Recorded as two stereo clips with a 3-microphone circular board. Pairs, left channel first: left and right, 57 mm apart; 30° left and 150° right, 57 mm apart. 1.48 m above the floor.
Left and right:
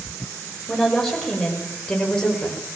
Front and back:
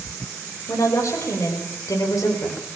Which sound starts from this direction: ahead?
A woman speaking, at 0.7 s.